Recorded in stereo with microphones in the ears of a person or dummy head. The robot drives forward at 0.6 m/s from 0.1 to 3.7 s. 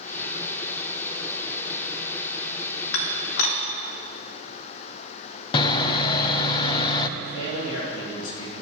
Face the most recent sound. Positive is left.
turn(degrees=80)